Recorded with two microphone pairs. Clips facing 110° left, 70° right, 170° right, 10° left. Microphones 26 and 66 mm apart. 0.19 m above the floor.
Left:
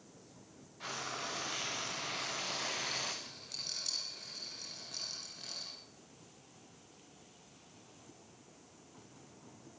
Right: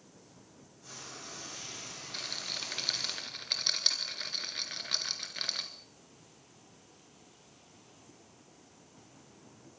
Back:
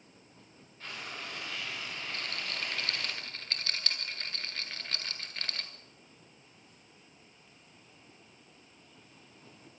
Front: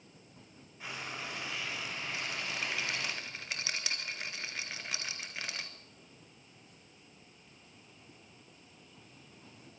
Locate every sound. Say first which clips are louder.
0.8 s frying: left 7 dB, front 1 dB; 90° left, 4.5 m
2.1 s a rattle: right 6 dB, front 1 dB; 65° right, 2 m